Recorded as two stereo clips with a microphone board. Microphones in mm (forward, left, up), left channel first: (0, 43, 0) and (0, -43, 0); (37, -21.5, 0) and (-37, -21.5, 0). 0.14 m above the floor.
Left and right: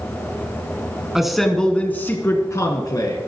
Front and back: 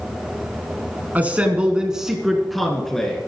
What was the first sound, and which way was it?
A man speaking, 165° right.